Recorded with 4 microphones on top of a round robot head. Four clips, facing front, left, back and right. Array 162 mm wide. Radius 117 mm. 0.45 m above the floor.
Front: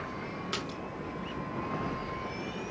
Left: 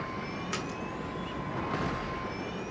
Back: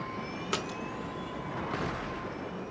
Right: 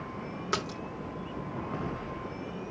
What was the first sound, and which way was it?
A splash, 125° right.